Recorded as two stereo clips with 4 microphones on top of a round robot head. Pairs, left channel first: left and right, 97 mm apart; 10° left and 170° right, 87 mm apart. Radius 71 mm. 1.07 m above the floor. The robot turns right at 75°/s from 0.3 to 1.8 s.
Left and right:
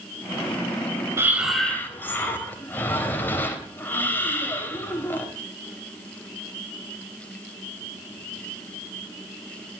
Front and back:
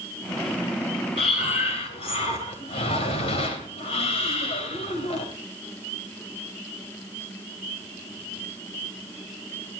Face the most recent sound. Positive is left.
turn(degrees=20)